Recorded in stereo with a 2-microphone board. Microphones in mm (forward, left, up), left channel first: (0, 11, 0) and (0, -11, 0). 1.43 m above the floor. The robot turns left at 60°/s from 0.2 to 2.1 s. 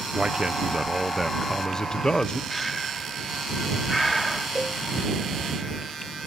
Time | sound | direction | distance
0.1 | a man speaking | 120° right | ?
2.5 | breathing | centre (ahead or behind) | ?
4.5 | a cowbell | 40° right (ahead or behind) | ?